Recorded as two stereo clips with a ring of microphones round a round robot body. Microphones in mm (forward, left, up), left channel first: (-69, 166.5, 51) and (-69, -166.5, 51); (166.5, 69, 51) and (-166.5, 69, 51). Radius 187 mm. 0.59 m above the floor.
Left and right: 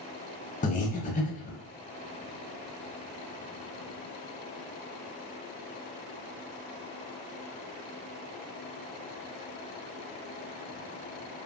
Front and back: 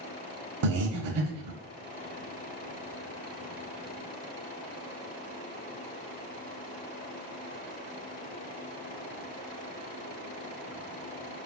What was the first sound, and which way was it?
Breathing, 155° left.